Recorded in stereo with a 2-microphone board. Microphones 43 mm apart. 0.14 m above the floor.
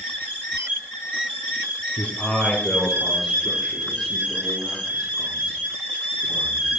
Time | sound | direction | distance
2.0 | a man speaking | 30° left (ahead or behind) | 2.5 m